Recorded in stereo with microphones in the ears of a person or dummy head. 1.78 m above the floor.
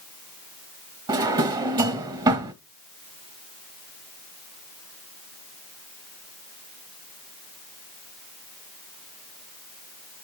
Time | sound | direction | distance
1.1 | a drawer | 25° right (ahead or behind) | 1.1 m